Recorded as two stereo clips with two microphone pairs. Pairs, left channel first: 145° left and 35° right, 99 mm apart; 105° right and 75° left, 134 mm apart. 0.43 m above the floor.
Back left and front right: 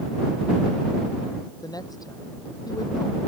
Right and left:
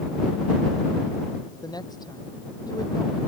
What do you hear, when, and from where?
1.6 s a woman speaking: 165° right